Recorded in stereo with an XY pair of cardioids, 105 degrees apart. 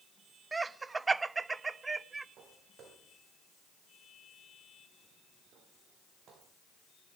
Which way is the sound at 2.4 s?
65° right.